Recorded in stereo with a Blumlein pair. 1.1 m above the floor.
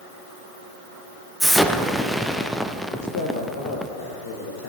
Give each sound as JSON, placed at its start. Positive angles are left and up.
{"t": 1.4, "sound": "an explosion", "azimuth_deg": 0, "distance_m": 0.7}
{"t": 2.9, "sound": "a man speaking", "azimuth_deg": 55, "distance_m": 1.2}